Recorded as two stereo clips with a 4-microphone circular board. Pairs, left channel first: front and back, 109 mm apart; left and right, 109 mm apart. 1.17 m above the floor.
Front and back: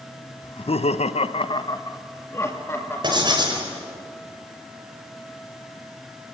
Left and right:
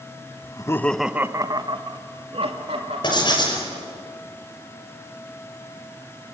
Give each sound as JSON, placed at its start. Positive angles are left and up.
{"t": 0.4, "sound": "laughter", "azimuth_deg": 40, "distance_m": 1.0}
{"t": 3.0, "sound": "writing", "azimuth_deg": 135, "distance_m": 5.5}